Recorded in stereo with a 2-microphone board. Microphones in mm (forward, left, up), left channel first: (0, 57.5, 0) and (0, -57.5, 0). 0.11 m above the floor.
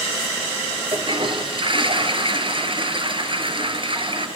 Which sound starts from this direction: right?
A toilet flushing, at 0.9 s.